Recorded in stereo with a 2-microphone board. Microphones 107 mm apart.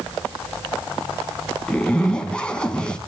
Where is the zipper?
10° left (ahead or behind), 2 m.